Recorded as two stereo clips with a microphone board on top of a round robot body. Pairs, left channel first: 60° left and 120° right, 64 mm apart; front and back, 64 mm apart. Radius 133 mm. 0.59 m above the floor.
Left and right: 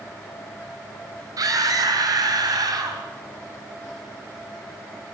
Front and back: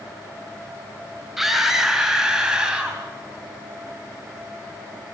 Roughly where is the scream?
Right.